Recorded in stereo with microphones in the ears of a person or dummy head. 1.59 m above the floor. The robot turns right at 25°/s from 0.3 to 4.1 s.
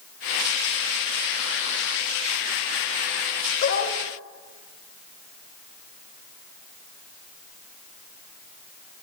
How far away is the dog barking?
About 3 m.